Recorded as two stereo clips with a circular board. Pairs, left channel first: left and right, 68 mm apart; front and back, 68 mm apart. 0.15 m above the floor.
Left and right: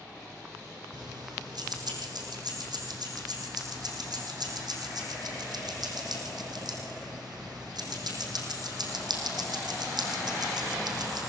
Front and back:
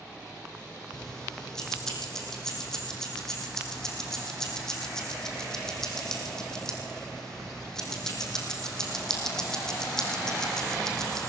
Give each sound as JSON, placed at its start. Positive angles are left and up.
{"t": 0.9, "sound": "keys jangling", "azimuth_deg": -85, "distance_m": 4.5}